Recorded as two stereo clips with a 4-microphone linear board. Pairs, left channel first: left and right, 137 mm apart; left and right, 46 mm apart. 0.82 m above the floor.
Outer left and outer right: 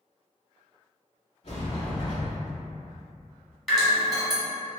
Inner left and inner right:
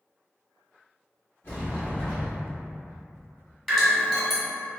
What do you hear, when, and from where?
1.4 s a sliding door: 55° left (ahead or behind), 1.6 m
3.7 s dripping: centre (ahead or behind), 1.1 m